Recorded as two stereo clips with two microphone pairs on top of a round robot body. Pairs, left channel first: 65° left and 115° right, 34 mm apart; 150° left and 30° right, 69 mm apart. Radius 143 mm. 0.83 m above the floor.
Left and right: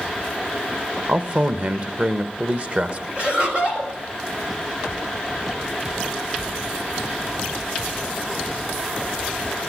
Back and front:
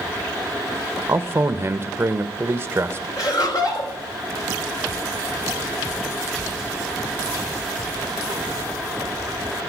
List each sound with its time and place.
1.1 s a man speaking: 75° right, 1.5 m
3.2 s laughter: straight behind, 5.5 m